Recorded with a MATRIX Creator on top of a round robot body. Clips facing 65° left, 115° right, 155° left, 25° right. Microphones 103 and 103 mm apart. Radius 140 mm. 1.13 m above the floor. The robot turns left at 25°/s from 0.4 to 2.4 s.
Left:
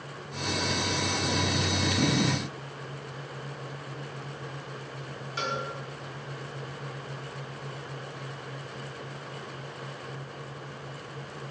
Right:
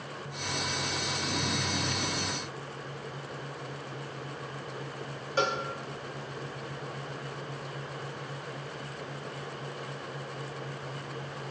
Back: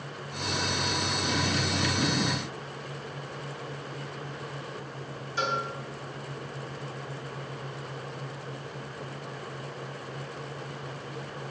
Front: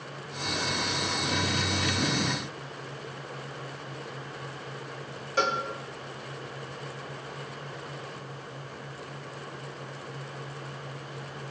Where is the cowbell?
60° right, 1.2 m.